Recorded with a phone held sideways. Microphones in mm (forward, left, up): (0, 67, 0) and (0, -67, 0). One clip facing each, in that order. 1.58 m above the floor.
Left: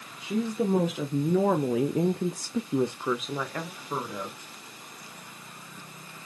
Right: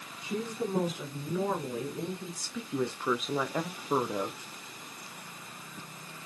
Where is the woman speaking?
80° left, 1.6 m; by 4.4 s 30° right (ahead or behind), 1.2 m.